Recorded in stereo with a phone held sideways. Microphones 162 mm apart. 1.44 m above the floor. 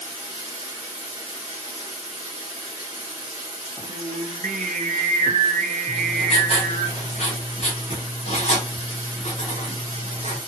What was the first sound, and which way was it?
Running water, 30° left (ahead or behind).